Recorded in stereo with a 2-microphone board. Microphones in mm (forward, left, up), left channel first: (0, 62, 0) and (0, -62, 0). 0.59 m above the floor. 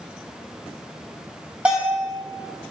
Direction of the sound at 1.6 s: 10° right (ahead or behind).